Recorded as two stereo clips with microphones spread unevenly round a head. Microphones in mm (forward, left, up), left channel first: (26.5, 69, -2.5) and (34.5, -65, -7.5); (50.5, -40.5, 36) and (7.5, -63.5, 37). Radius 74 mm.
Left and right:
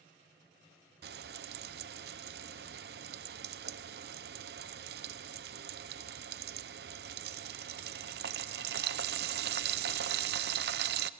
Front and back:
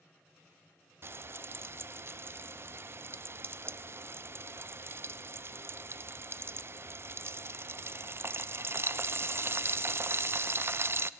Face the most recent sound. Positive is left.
turn(degrees=-110)